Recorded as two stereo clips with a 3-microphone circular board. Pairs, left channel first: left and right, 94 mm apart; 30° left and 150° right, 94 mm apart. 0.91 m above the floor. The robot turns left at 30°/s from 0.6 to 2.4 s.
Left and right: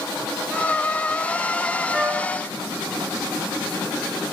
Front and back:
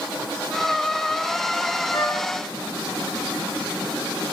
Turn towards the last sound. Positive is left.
turn(degrees=-25)